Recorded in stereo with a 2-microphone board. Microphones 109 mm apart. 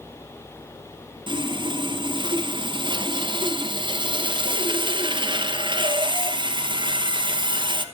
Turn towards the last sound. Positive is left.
turn(degrees=-45)  # may be behind; listen again after turning